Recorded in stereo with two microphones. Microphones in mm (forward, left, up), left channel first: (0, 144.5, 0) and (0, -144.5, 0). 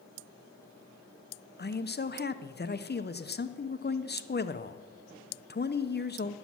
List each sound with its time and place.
1.6 s a man speaking: 35° left (ahead or behind), 0.7 m